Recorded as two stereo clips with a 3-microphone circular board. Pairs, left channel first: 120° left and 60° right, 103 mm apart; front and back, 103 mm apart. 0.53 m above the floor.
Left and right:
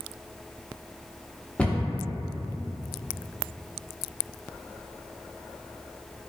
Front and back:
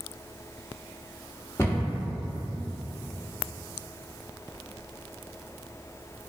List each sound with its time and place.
1.6 s a cupboard door: 50° left, 0.6 m